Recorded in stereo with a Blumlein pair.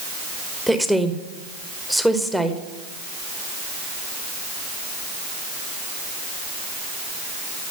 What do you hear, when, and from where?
0.7 s a woman speaking: straight ahead, 1.0 m